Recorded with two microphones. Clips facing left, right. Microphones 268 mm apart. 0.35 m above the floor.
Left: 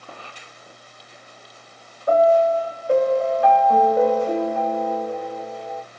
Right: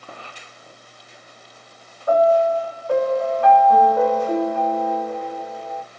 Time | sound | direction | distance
2.1 | a piano | 20° left (ahead or behind) | 1.4 m